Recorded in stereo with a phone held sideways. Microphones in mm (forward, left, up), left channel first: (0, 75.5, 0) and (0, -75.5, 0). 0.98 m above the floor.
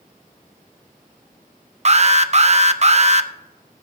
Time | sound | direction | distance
1.9 | an alarm | 50° right (ahead or behind) | 0.5 m